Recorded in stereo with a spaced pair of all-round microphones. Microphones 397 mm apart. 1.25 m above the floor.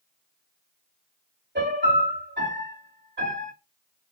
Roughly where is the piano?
Right.